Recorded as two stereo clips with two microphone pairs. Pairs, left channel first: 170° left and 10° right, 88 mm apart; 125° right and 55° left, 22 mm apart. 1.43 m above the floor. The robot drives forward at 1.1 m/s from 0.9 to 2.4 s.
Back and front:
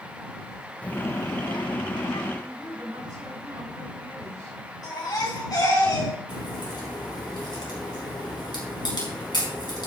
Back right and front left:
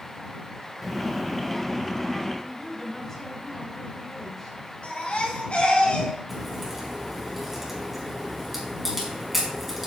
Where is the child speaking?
120° left, 0.6 m; by 2.3 s 170° left, 1.8 m.